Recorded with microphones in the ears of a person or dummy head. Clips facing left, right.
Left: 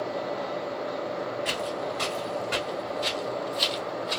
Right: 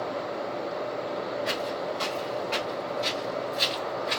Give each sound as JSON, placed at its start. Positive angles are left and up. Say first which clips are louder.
{"t": 1.4, "sound": "footsteps", "louder": "even", "side_deg": 30, "distance_m": 1.5}